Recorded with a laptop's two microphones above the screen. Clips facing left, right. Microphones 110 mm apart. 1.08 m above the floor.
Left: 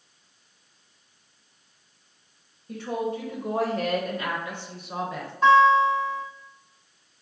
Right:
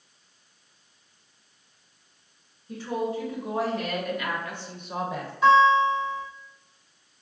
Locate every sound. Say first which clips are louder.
2.7 s a woman speaking: even; 60° left (ahead or behind), 1.3 m; by 5.3 s 15° right (ahead or behind), 0.8 m
5.4 s a guitar: left 1 dB; 40° left (ahead or behind), 1.7 m